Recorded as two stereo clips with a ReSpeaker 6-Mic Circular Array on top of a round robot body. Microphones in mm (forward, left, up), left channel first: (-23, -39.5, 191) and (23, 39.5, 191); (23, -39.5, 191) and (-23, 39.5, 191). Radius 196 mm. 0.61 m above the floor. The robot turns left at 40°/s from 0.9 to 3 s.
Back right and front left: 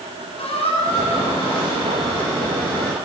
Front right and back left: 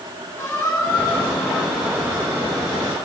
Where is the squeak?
125° right, 7 m; by 3.0 s 155° left, 7 m.